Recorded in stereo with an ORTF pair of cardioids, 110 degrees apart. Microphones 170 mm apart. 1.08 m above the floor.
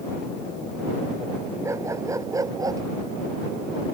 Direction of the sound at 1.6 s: 15° right.